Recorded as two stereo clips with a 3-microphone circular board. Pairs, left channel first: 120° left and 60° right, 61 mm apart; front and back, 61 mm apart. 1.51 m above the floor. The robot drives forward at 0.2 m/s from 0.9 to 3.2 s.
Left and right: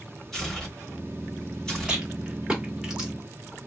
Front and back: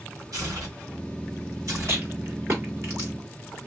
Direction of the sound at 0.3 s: 155° right.